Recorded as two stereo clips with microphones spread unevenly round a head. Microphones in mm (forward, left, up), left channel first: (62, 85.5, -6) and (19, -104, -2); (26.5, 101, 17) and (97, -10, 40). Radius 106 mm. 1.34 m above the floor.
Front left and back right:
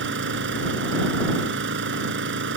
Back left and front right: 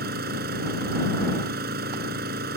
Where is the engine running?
80° right.